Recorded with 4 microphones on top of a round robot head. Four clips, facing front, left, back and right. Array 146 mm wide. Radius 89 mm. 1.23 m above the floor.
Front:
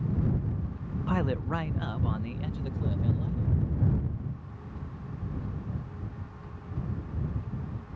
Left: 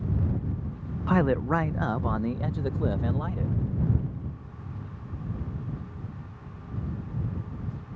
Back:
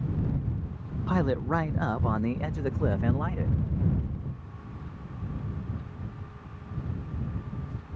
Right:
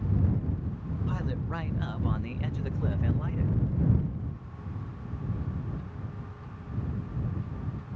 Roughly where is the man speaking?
Left.